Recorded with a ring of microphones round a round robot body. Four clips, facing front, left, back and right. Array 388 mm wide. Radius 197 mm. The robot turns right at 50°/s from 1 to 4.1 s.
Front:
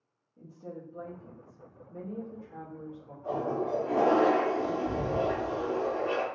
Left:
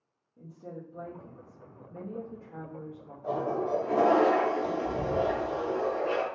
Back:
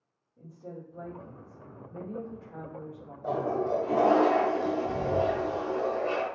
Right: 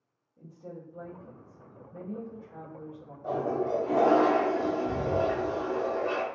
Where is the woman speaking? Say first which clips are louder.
Left 1 dB, even; 65° left, 1.0 m; by 3.1 s 175° left, 1.0 m.